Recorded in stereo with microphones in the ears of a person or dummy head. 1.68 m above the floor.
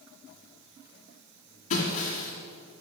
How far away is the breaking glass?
About 3 m.